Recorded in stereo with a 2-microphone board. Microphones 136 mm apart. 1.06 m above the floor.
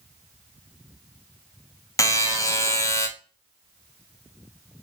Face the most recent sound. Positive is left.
turn(degrees=25)  # may be behind; listen again after turning